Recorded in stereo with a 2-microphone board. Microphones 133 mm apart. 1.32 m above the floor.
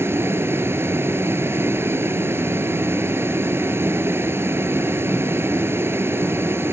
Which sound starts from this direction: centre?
A vehicle, at 0.0 s.